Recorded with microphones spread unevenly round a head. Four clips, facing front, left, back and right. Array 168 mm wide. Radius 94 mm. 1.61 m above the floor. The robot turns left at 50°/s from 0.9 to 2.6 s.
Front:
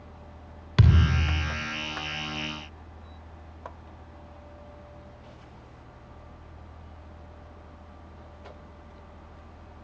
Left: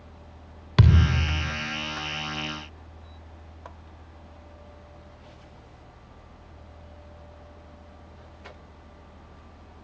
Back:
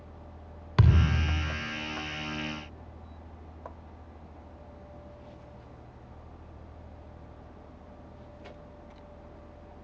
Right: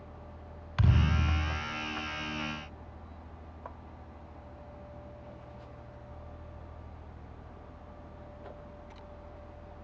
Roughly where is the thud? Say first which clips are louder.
Left 7 dB, front 2 dB; left.